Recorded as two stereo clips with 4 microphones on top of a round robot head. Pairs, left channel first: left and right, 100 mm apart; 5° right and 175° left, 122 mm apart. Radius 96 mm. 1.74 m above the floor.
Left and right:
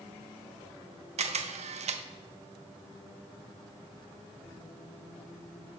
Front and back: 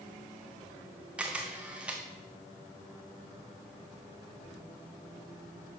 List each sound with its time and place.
1.2 s a camera shutter: 100° right, 0.7 m